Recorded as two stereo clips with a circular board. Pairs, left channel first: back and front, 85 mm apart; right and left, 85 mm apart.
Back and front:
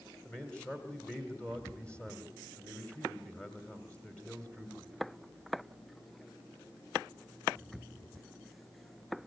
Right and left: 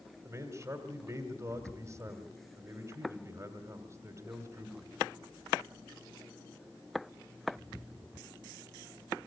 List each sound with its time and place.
0.2 s a man speaking: 110° left, 1.8 m